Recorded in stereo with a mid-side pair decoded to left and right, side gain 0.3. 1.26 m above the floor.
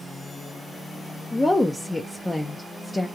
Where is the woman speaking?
25° left, 0.6 m.